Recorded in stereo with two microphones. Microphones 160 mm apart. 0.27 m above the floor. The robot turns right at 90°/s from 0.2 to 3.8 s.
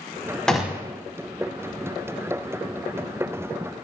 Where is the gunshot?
175° left, 0.7 m; by 0.9 s 145° right, 0.7 m.